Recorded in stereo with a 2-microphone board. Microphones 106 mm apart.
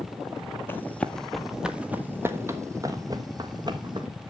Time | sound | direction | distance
0.7 | running footsteps | 20° left (ahead or behind) | 1.1 m